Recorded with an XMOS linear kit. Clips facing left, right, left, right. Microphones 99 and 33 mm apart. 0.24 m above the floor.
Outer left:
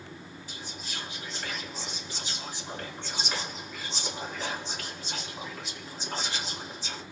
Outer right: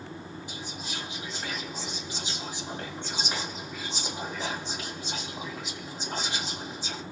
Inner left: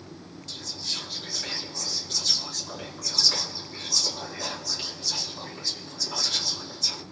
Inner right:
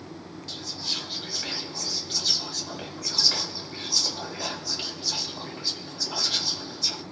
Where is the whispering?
20° right (ahead or behind), 1.8 m.